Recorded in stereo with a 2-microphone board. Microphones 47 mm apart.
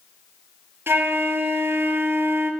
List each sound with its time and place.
0.9 s a flute: 55° right (ahead or behind), 1.4 m